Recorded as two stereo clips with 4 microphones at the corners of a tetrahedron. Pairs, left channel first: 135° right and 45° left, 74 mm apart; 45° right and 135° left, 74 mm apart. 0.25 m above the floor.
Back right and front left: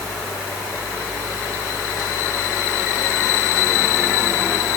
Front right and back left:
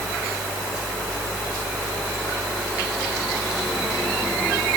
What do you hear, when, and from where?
Only background noise.